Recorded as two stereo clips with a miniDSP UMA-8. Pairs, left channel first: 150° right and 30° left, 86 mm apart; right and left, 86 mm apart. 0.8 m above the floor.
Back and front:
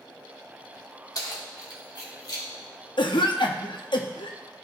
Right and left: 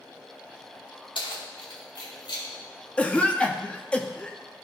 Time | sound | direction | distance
1.1 | keys jangling | 105° right | 1.3 m
3.0 | a cough | 165° right | 0.9 m